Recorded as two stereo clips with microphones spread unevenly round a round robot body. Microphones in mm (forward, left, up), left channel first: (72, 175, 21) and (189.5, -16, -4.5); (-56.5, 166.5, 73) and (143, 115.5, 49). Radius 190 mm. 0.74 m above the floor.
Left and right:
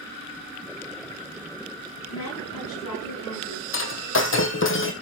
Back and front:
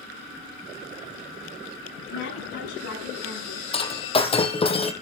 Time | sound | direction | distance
2.1 | a woman speaking | 160° left | 9 m
3.7 | breaking glass | 105° left | 2 m